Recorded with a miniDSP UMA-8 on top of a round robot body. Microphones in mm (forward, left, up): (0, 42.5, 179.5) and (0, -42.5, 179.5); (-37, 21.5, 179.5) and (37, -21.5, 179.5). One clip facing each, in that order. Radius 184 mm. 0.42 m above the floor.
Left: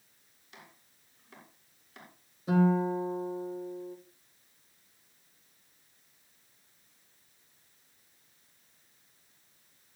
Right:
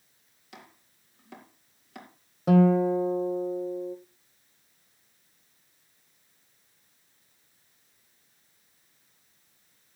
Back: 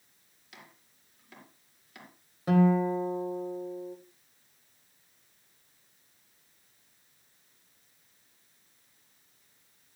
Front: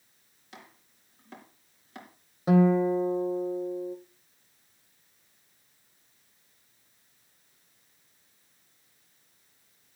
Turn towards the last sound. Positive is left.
turn(degrees=-100)